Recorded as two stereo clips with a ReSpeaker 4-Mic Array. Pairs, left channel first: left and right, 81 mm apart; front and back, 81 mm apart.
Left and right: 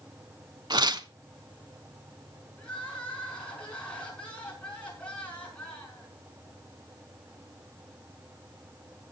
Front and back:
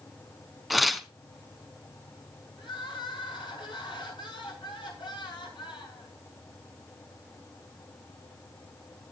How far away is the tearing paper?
About 0.9 m.